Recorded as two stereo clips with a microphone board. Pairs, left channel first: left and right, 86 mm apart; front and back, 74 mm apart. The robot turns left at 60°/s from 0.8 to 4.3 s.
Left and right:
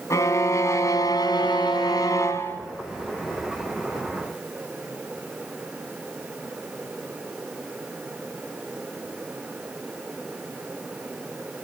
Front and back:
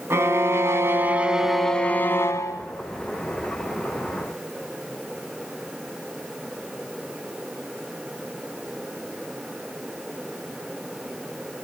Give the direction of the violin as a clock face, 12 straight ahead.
8 o'clock.